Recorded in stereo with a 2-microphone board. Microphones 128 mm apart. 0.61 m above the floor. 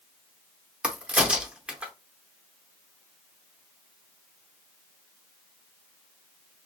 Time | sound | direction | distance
0.8 | a crack | 10° right (ahead or behind) | 0.6 m